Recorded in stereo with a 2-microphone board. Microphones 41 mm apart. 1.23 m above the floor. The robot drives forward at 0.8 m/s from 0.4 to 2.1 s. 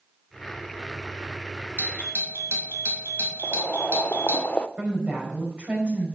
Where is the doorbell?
75° right (ahead or behind), 2.5 m; by 4.4 s 70° right (ahead or behind), 2.5 m.